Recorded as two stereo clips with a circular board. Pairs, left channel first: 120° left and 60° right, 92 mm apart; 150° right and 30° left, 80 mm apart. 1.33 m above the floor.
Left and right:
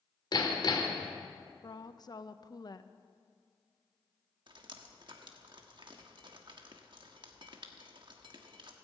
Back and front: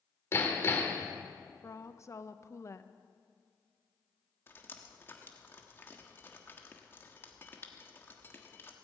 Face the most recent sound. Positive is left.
turn(degrees=-90)